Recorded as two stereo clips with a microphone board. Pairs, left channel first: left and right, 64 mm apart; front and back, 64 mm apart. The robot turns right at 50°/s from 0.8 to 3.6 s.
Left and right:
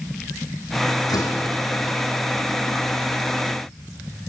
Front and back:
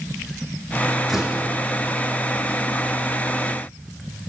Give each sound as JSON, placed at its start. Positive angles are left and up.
{"t": 1.1, "sound": "a door slam", "azimuth_deg": 90, "distance_m": 4.0}